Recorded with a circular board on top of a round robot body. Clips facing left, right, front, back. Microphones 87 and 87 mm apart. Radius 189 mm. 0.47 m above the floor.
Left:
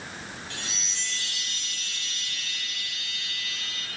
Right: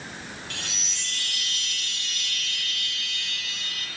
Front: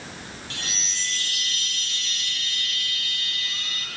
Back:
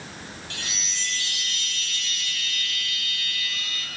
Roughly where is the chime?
Ahead right.